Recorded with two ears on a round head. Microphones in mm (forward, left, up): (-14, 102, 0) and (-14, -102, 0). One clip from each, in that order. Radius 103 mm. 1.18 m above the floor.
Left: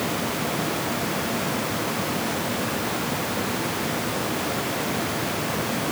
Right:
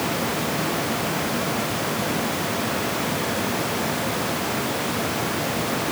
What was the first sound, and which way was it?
Only background noise.